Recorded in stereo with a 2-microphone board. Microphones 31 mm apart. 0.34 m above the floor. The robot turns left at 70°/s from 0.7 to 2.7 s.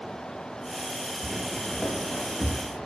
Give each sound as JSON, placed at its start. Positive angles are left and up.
{"t": 1.2, "sound": "footsteps", "side_deg": -5, "distance_m": 1.1}